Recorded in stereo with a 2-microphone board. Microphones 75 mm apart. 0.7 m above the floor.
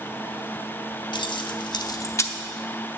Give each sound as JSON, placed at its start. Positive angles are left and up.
{"t": 1.1, "sound": "keys jangling", "side_deg": 70, "distance_m": 0.7}